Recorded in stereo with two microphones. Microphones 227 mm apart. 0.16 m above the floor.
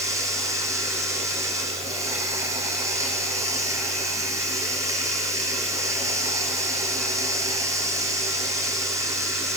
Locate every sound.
0.0 s running water: 15° right (ahead or behind), 5.5 m